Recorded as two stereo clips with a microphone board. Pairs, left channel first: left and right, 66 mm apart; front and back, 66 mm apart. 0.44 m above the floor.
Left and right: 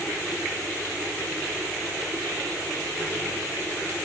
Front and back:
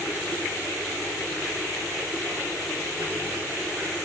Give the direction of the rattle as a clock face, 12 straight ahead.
No rattle in this recording.